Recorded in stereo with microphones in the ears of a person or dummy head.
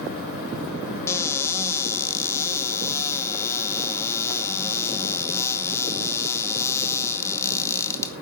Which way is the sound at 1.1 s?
20° left (ahead or behind).